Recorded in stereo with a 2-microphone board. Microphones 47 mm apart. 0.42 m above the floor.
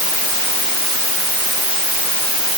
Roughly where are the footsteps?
I don't hear footsteps.